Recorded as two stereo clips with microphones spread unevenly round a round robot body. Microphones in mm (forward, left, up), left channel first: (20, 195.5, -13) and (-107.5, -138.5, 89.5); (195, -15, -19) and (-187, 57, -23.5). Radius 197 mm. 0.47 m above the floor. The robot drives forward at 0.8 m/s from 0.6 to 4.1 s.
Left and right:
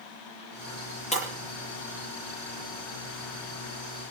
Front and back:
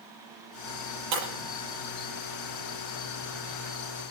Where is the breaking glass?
140° left, 8.5 m.